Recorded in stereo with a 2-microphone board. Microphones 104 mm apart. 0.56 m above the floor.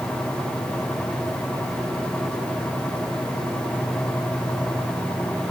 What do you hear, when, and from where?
Only background noise.